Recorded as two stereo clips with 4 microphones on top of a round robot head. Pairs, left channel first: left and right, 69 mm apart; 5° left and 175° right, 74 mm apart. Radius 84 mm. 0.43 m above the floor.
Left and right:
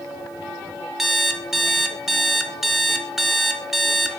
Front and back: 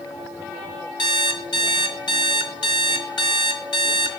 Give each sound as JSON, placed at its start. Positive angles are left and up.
{"t": 1.0, "sound": "an alarm clock", "azimuth_deg": -5, "distance_m": 1.3}